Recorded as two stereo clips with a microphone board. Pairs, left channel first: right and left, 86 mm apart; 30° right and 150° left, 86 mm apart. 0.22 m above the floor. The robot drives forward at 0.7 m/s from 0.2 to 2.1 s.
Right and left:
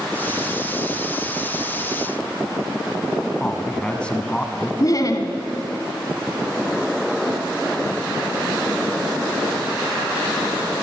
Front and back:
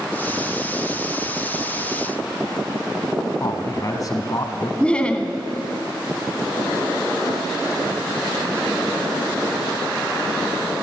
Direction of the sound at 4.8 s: 105° right.